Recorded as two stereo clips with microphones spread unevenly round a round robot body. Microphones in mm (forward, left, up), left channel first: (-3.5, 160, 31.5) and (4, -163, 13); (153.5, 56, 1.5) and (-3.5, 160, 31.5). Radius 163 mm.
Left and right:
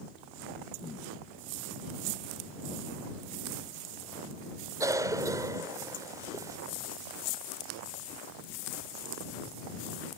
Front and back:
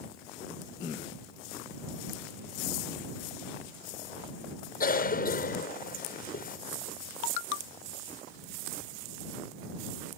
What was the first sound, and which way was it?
A cough, 10° right.